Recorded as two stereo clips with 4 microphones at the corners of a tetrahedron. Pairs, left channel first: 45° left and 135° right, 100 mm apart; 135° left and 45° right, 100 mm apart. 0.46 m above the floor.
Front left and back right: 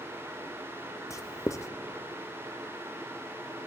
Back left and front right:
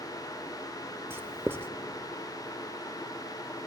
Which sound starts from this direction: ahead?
Writing, at 1.1 s.